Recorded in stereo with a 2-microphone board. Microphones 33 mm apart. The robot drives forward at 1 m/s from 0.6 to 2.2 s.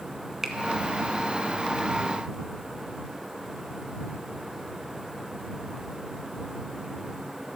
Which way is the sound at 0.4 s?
15° right (ahead or behind).